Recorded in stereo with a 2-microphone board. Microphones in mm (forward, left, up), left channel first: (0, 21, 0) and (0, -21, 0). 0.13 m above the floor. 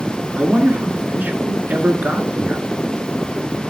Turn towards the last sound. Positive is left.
turn(degrees=-40)  # may be behind; listen again after turning